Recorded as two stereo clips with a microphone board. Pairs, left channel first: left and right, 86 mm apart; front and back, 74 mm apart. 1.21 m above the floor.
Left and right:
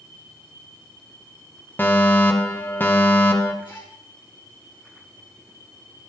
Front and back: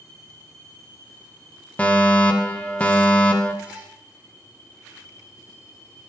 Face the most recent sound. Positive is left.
turn(degrees=110)